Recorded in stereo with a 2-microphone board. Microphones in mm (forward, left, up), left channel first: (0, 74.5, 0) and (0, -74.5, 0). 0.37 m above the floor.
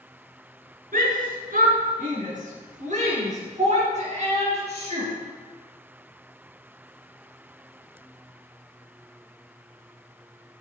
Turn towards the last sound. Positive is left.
turn(degrees=-45)  # may be behind; listen again after turning